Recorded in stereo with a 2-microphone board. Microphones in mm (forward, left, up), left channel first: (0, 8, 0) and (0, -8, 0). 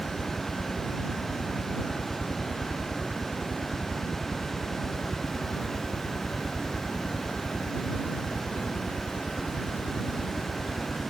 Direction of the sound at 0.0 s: 60° left (ahead or behind).